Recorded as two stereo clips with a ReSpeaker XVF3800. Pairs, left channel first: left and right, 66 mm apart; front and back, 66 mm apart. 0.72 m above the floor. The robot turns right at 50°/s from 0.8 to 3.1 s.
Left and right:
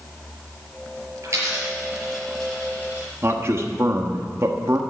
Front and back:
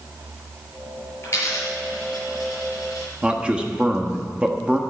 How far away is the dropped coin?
About 5.5 m.